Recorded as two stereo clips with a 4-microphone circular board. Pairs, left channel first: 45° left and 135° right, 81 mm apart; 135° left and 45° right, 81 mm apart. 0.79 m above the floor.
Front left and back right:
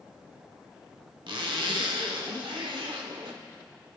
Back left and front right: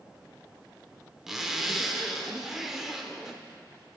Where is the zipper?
130° right, 1.0 m.